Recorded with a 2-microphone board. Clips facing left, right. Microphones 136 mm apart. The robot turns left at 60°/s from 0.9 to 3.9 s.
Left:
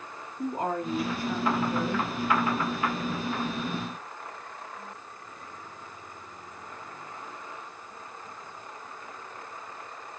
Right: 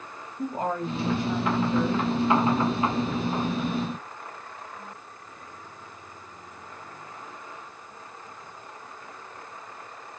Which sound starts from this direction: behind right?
A woman speaking, at 0.4 s.